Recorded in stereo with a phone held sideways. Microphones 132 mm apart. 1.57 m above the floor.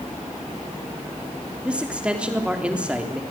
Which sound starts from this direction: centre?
A man speaking, at 1.6 s.